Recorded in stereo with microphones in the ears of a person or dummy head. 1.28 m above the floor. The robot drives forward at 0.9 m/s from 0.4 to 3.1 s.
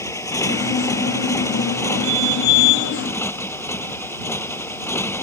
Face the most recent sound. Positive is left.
turn(degrees=15)  # may be behind; listen again after turning